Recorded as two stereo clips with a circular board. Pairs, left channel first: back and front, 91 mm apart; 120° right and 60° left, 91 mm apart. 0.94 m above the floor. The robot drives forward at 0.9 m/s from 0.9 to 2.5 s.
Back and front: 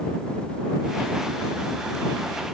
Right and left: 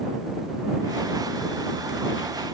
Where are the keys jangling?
I don't hear keys jangling.